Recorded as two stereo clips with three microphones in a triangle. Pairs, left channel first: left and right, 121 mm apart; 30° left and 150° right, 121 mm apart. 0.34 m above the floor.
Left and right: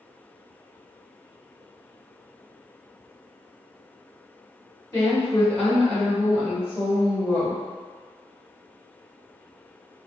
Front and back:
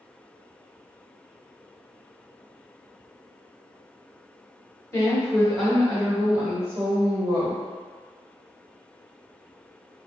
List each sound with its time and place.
4.9 s a woman speaking: 65° left, 1.4 m; by 7.6 s 135° right, 1.6 m